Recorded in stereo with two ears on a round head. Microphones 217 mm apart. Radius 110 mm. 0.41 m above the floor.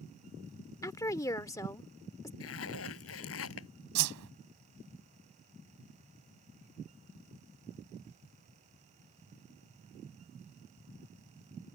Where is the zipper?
65° left (ahead or behind).